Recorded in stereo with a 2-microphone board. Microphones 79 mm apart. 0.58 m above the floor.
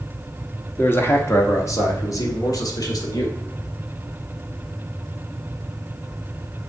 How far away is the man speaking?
About 1.2 m.